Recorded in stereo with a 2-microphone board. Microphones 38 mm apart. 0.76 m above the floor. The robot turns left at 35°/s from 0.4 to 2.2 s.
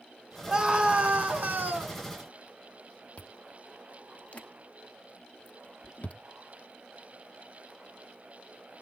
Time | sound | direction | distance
0.5 | a scream | 30° right | 2.5 m
3.2 | chewing | 45° left (ahead or behind) | 0.7 m